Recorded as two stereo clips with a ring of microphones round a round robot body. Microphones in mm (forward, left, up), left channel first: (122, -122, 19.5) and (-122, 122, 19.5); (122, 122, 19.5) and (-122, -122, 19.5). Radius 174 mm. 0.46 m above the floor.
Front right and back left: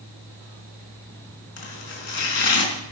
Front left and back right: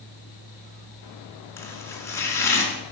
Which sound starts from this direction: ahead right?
Chopping, at 1.6 s.